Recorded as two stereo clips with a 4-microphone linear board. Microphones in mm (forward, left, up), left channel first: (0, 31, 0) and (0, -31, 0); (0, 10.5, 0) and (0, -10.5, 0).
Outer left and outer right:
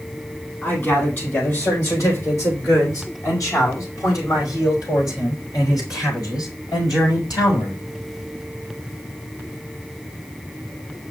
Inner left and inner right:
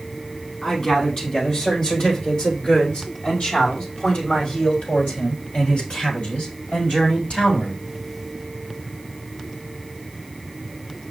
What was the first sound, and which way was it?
A man speaking, 40° left (ahead or behind).